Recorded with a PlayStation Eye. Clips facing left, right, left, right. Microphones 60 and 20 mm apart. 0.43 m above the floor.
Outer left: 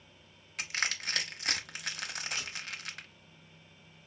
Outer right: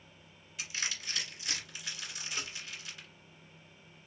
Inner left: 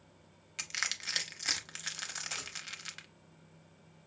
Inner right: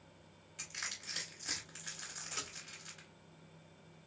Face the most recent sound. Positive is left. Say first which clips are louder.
# outer left 1 dB, inner left 2 dB
turn(degrees=-40)  # may be behind; listen again after turning